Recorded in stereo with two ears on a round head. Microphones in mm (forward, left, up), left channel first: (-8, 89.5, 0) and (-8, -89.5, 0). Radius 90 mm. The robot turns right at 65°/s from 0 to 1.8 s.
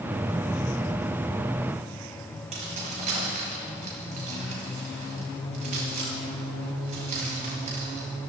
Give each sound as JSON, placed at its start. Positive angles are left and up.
{"t": 2.5, "sound": "keys jangling", "side_deg": -35, "distance_m": 6.0}